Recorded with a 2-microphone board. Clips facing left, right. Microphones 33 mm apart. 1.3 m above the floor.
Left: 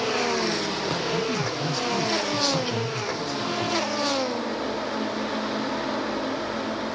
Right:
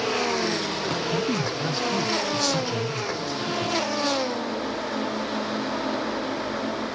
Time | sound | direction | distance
1.1 | a man speaking | 60° right (ahead or behind) | 1.1 m